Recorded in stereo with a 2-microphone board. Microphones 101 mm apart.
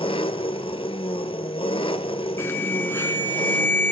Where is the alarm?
25° left (ahead or behind), 1.5 m.